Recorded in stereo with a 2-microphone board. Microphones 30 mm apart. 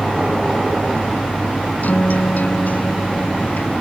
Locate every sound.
1.8 s a guitar: 65° left (ahead or behind)